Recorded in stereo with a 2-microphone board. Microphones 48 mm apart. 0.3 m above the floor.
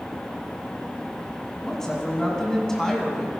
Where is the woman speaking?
10° left (ahead or behind), 2 m.